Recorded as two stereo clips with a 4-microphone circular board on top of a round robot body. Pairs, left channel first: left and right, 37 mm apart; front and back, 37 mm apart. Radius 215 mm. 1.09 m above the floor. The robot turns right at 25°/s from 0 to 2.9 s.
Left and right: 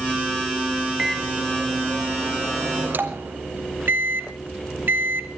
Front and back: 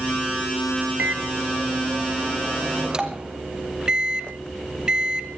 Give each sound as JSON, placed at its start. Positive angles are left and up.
{"t": 1.0, "sound": "a microwave", "azimuth_deg": -165, "distance_m": 1.8}